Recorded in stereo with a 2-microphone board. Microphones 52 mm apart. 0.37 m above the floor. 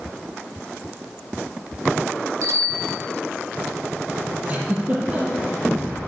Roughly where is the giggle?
Right.